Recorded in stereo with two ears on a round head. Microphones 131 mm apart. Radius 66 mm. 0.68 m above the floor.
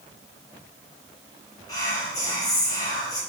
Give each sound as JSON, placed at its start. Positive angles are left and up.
{"t": 1.7, "sound": "whispering", "side_deg": 25, "distance_m": 0.8}